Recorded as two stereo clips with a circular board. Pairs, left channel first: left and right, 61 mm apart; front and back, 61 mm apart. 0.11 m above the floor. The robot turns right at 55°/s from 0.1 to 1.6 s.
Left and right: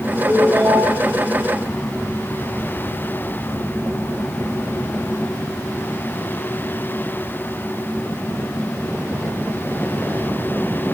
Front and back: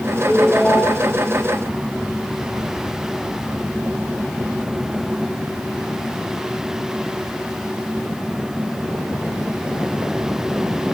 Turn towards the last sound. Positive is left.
turn(degrees=-15)